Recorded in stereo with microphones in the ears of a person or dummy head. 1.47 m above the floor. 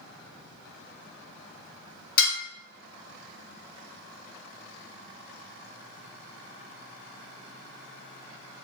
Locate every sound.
2.2 s dishes clattering: 50° left (ahead or behind), 1.3 m